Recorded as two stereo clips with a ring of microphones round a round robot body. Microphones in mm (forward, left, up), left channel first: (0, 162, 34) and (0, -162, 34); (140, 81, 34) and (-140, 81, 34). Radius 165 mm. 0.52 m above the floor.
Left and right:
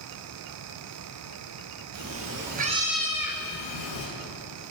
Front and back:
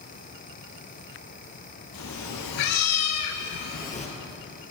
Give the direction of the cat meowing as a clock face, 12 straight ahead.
2 o'clock.